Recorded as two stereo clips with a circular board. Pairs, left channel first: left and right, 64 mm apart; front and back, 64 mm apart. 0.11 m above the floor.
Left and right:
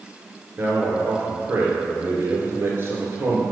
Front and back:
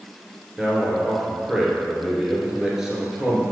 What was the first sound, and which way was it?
A man speaking, 105° right.